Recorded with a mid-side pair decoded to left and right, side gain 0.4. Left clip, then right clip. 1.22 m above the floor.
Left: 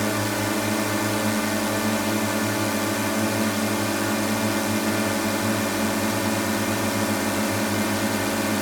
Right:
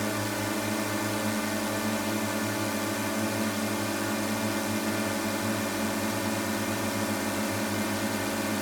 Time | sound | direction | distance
0.0 | a drone | 40° left | ?